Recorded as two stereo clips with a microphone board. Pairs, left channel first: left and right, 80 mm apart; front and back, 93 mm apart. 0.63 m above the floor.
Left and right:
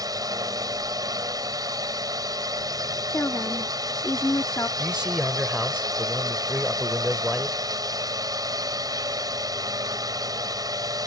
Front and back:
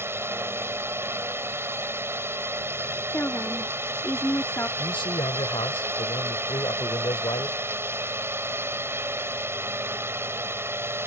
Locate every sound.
0.0 s a drone: 120° right
3.1 s a woman speaking: 50° left
4.8 s a man speaking: 10° right